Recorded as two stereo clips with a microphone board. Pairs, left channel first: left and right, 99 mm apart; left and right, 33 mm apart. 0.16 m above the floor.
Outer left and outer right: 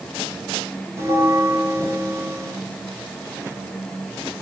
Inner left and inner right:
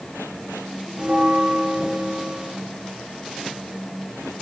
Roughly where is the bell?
Right.